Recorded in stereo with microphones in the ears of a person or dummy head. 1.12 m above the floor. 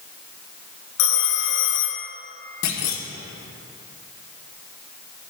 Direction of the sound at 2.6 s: 80° left.